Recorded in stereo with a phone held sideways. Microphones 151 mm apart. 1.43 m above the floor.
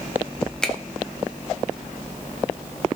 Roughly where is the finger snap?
Centre.